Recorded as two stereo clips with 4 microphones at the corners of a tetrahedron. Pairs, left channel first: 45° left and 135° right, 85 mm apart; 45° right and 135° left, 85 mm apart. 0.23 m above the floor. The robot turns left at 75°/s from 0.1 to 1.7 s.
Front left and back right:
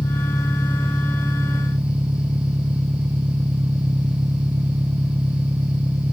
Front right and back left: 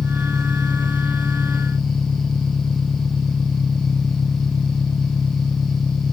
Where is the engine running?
25° left; by 6.1 s 95° right.